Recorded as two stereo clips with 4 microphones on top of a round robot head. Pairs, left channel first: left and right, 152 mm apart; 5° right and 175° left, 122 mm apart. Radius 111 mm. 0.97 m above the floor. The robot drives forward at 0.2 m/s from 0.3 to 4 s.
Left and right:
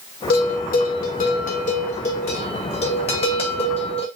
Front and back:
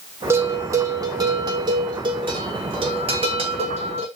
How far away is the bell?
About 0.8 m.